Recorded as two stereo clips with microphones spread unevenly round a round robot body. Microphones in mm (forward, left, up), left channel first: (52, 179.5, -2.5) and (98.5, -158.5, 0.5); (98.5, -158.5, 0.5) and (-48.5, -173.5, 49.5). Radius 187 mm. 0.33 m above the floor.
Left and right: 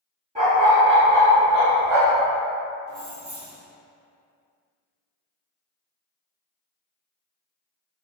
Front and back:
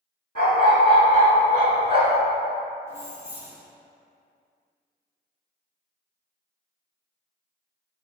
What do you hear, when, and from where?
0.3 s a dog barking: 155° right, 1.3 m; by 2.2 s 110° right, 1.3 m
2.9 s keys jangling: 85° right, 1.3 m